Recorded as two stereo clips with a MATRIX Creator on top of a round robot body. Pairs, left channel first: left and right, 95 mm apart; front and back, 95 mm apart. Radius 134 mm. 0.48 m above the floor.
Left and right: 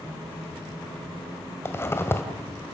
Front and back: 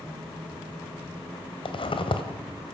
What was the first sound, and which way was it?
A zipper, 25° left.